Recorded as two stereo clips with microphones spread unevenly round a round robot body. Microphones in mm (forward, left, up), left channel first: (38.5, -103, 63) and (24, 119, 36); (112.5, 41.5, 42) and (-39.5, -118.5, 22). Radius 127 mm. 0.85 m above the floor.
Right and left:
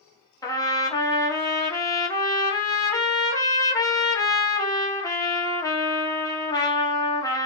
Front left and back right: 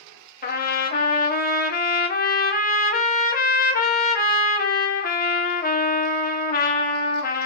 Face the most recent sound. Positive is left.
turn(degrees=-10)